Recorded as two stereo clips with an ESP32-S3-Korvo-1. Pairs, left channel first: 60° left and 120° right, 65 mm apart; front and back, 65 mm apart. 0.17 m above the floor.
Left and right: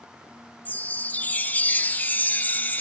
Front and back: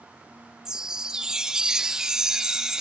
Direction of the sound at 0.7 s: 105° left.